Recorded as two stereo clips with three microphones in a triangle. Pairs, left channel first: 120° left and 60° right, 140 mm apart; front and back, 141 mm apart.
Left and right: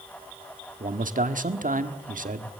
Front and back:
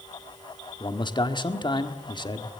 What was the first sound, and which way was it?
A man speaking, 55° right.